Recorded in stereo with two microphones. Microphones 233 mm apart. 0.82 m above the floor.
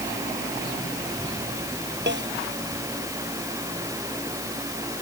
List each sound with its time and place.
2.1 s a snare drum: 50° right (ahead or behind)